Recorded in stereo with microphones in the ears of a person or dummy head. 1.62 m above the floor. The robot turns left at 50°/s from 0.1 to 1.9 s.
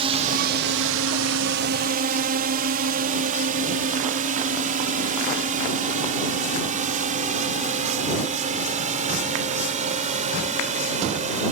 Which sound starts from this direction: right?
A drone, at 0.0 s.